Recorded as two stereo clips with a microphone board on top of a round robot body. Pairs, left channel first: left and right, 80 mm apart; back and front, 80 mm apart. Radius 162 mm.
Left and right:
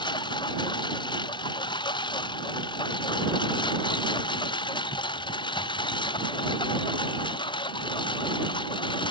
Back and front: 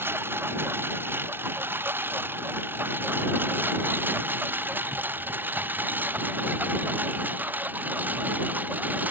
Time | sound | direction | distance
0.0 | a lawn mower | 65° left | ?